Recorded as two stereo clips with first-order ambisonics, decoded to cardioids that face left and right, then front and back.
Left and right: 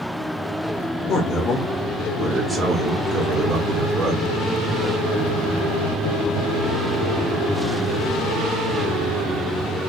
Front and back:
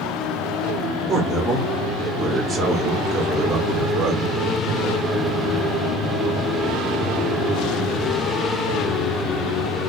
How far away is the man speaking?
About 1.0 m.